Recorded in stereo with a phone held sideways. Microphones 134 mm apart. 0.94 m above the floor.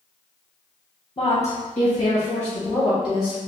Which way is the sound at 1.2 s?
45° left (ahead or behind).